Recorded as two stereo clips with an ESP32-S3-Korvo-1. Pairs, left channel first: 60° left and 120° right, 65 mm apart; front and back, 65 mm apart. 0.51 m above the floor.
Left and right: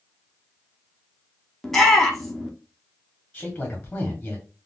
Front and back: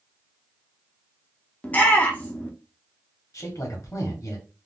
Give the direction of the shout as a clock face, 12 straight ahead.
1 o'clock.